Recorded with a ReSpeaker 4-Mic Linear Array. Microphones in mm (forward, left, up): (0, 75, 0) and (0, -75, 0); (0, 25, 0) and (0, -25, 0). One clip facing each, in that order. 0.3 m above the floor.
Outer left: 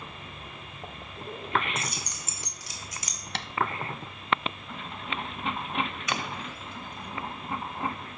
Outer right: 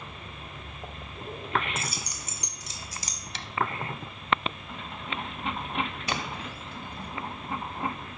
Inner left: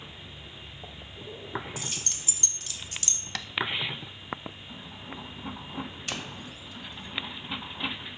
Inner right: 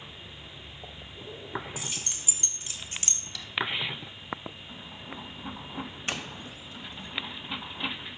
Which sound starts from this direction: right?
A doorbell, at 6.1 s.